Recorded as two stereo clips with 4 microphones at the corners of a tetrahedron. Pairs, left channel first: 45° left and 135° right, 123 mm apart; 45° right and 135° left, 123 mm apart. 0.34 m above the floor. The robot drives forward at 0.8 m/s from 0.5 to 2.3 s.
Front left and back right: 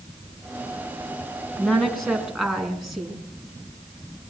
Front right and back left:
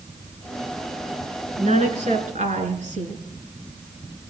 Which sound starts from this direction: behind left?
A woman speaking, at 1.6 s.